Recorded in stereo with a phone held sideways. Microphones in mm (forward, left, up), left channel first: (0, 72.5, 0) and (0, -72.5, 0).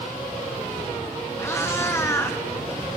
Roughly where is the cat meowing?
Centre.